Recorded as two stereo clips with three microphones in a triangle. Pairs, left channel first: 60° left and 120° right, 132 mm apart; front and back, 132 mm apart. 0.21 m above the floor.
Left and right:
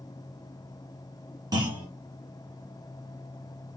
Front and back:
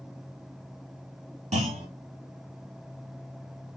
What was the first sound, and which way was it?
A clunk, 175° right.